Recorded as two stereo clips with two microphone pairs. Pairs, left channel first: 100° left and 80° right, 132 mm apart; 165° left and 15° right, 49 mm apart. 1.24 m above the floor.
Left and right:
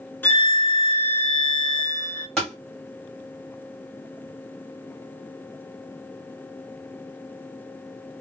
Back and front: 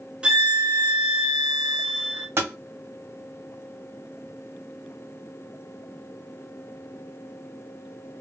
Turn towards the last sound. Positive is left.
turn(degrees=15)